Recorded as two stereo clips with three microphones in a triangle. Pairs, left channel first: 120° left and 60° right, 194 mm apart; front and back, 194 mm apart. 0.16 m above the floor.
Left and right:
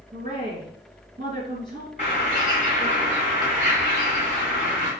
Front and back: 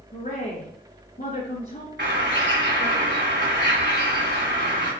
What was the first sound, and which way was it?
A woman speaking, 25° right.